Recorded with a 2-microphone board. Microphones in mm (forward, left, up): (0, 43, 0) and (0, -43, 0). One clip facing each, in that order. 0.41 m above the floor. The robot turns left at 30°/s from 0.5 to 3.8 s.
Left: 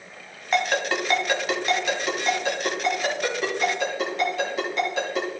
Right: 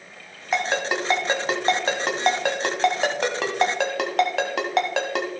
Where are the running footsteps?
I don't hear running footsteps.